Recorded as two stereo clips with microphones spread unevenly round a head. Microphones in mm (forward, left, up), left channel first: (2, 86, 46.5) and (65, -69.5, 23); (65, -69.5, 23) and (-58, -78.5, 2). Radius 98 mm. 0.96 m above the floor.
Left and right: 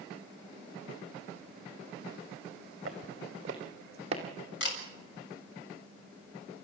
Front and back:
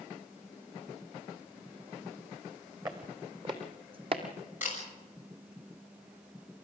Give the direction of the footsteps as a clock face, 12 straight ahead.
4 o'clock.